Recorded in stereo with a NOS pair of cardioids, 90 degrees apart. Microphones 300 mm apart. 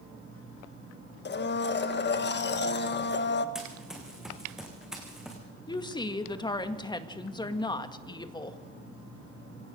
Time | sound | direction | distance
1.2 | a blender | 35° left | 1.6 m
3.5 | running footsteps | straight ahead | 5.5 m
5.7 | a woman speaking | 15° left | 1.9 m